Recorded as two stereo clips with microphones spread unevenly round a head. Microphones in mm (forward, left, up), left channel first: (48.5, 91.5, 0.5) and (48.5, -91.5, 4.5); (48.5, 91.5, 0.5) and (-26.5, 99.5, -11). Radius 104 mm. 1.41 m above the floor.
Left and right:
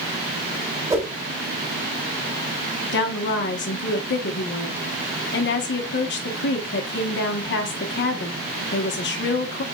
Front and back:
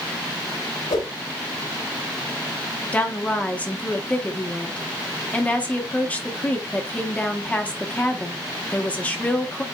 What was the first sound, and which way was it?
A whoosh, 20° right.